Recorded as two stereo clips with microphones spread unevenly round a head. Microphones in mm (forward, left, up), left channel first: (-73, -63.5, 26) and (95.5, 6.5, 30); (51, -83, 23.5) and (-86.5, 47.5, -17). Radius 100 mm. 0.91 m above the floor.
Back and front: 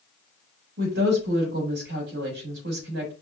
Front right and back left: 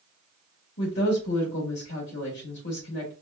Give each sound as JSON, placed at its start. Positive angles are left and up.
{"t": 0.8, "sound": "a woman speaking", "azimuth_deg": 0, "distance_m": 3.5}